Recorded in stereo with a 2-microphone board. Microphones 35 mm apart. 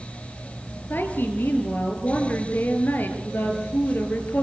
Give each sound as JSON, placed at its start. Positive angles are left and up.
{"t": 0.9, "sound": "a woman speaking", "side_deg": 70, "distance_m": 4.5}